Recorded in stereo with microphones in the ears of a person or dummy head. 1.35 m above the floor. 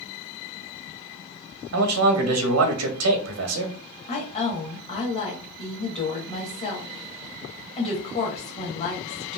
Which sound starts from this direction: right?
A man speaking, at 1.7 s.